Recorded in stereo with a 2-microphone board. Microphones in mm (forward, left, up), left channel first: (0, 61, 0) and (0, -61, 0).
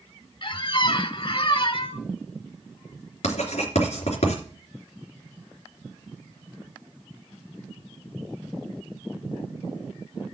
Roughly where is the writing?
Left.